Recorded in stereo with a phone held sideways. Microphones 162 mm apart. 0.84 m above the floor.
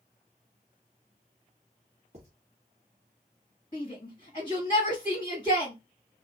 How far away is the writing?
About 1.4 m.